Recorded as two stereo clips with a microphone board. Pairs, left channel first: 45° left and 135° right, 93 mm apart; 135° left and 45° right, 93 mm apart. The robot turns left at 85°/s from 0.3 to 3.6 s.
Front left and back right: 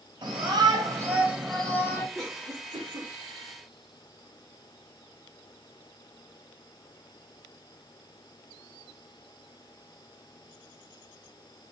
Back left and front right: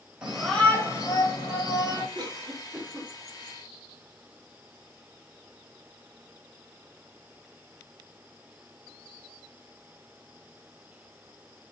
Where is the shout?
125° right, 1.7 m; by 2.0 s 85° left, 1.7 m.